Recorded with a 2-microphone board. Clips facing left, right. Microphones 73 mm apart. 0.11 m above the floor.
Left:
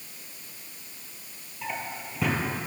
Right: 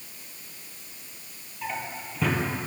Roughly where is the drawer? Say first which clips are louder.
Right 1 dB; centre.